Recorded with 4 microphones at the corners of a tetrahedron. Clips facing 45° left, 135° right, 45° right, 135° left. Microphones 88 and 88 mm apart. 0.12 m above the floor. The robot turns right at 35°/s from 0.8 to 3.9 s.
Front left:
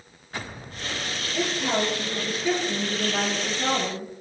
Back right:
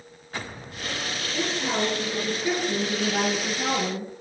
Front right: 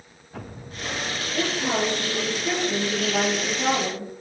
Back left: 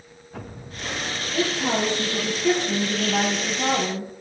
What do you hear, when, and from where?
1.3 s a woman speaking: 110° left, 1.6 m; by 4.1 s 160° right, 1.6 m